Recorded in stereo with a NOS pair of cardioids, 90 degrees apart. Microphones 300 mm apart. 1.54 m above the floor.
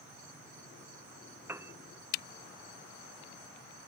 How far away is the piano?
About 0.5 m.